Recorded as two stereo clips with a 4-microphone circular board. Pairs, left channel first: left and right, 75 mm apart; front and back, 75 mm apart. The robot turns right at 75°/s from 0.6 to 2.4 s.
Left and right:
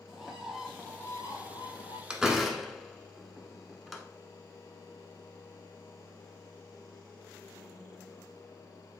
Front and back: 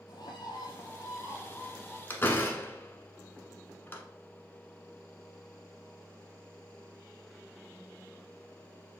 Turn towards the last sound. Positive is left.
turn(degrees=0)